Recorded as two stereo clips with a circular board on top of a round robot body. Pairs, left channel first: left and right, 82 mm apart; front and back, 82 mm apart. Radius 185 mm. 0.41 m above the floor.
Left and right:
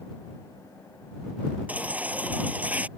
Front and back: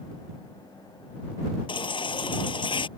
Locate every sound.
1.7 s a baby crying: 15° right